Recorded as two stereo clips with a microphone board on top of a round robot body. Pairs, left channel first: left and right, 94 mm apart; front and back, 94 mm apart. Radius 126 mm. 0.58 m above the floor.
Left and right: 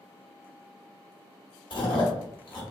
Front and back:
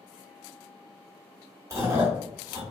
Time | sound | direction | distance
1.7 | chewing | 120° left | 1.3 m